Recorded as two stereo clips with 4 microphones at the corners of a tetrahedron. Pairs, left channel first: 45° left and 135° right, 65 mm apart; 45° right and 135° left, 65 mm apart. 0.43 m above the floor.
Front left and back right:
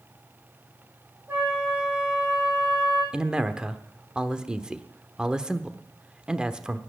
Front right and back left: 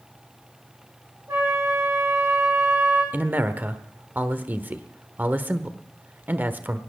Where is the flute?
170° left, 7 m.